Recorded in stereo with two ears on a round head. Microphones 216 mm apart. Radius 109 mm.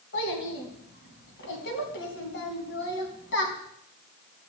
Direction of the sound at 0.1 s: 50° left (ahead or behind).